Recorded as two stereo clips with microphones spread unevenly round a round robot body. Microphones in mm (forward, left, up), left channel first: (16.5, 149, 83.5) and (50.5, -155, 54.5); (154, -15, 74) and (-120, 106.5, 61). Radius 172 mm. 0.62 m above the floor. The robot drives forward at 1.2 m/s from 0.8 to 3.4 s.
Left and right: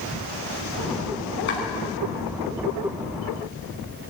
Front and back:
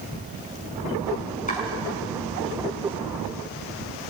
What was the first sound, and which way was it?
Chopping, 40° left.